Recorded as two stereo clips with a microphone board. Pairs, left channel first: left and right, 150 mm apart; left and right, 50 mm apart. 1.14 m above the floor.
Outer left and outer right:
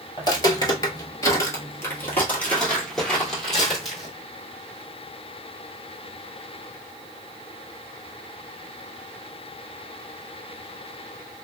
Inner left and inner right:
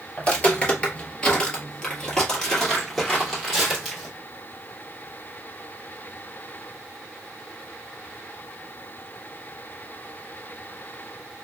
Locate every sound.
0.2 s footsteps: 25° left (ahead or behind), 1.3 m; by 4.1 s centre (ahead or behind), 2.5 m